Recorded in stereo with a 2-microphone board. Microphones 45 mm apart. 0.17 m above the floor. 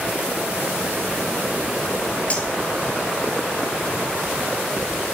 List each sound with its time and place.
2.3 s cutlery clinking: 30° left (ahead or behind), 1.7 m